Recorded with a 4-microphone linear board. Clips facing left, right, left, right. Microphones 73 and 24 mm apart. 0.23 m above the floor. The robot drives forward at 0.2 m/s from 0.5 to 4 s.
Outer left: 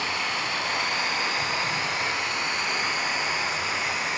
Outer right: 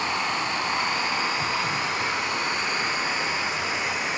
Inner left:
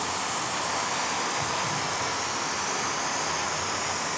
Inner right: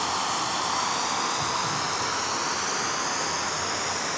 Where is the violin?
I don't hear a violin.